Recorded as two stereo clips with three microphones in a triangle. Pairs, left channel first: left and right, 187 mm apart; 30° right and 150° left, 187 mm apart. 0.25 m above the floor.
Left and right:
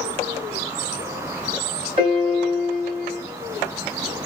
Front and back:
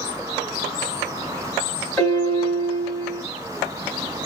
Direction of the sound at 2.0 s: 110° right.